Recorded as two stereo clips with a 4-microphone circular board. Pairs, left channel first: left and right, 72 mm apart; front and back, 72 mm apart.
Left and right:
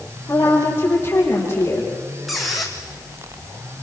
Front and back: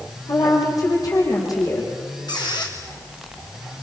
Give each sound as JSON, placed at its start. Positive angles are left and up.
{"t": 0.3, "sound": "a woman speaking", "azimuth_deg": 35, "distance_m": 6.5}
{"t": 2.3, "sound": "a squeak", "azimuth_deg": 0, "distance_m": 4.0}